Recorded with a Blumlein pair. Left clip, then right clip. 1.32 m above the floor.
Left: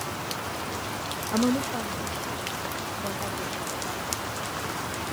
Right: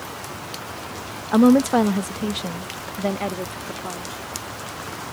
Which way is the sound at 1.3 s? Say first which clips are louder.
Right 11 dB; 65° right.